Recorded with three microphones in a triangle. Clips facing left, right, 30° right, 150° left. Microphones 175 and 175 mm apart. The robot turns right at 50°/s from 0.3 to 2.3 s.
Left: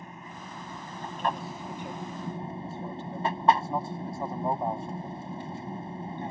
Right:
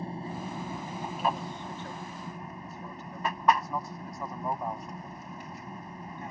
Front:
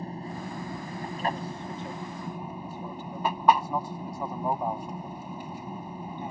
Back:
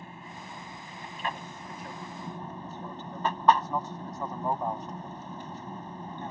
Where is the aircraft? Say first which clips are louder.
Right 8 dB, front 9 dB; 55° right; by 6.3 s 45° left.